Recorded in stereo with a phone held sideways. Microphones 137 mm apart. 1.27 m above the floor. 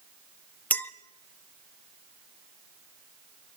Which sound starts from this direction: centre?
A clink, at 0.7 s.